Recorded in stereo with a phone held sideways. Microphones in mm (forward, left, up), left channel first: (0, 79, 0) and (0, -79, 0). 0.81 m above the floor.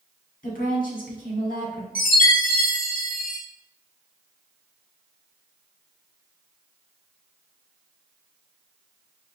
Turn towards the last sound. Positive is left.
turn(degrees=60)  # may be behind; listen again after turning